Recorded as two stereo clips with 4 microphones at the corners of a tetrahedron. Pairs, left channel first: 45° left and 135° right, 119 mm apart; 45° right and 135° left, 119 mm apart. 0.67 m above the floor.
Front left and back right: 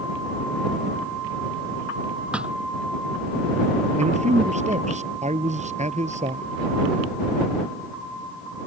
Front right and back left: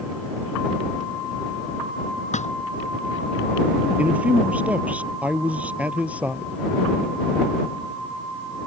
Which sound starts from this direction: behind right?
A man speaking, at 4.0 s.